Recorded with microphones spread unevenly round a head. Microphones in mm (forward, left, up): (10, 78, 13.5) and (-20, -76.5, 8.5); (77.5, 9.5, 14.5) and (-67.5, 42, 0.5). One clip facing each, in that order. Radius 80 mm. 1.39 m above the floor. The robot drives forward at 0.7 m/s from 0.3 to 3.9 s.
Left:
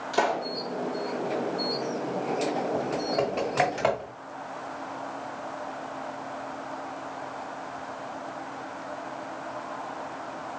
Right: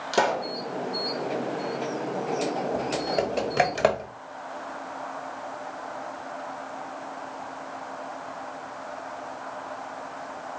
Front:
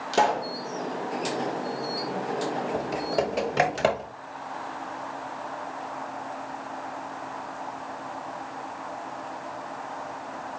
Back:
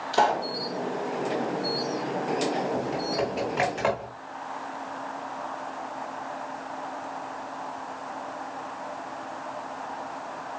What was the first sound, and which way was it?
A pop, 60° right.